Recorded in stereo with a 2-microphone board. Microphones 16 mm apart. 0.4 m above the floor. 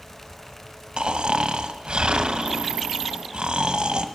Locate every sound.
1.0 s snoring: 70° right (ahead or behind), 1.1 m